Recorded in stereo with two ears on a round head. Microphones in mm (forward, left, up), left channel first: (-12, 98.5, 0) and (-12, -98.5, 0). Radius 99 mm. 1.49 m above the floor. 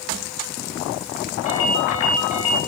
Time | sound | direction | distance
1.4 | a ringtone | 30° left (ahead or behind) | 6.5 m